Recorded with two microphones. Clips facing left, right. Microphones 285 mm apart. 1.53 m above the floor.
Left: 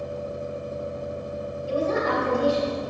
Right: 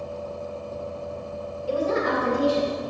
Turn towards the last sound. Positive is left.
turn(degrees=-85)